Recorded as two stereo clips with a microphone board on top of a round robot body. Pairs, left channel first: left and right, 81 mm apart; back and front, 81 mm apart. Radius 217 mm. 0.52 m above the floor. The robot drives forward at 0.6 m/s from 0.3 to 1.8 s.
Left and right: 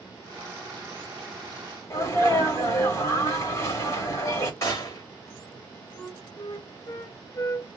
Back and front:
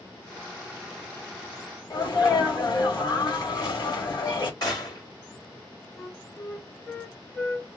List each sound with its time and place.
1.9 s a sneeze: 145° left, 3 m
4.6 s a gunshot: 140° left, 4 m
6.0 s a flute: 120° left, 1.1 m